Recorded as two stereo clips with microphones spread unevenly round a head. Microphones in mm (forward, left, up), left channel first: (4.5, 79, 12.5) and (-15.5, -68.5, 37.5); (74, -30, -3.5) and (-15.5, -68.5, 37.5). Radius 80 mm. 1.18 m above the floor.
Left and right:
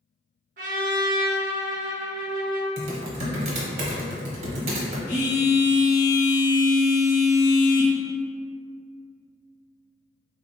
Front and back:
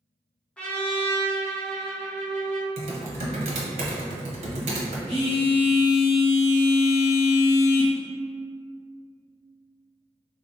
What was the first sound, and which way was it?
A trumpet, 65° right.